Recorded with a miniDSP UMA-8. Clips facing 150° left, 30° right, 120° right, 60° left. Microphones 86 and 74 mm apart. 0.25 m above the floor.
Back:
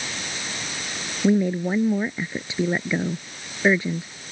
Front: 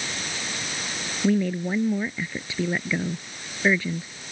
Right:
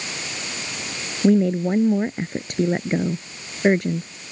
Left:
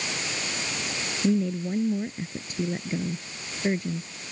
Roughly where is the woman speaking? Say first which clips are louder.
Back 3 dB, right 8 dB; behind right.